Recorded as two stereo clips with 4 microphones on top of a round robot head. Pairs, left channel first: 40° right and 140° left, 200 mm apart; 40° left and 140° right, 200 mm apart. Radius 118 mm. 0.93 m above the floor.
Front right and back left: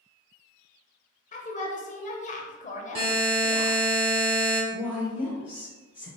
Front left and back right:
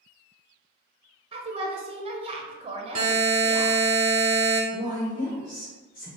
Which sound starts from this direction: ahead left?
A woman speaking, at 4.7 s.